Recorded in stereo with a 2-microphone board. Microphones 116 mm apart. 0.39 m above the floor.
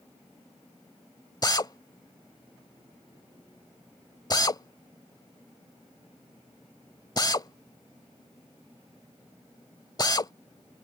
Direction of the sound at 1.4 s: 35° left (ahead or behind).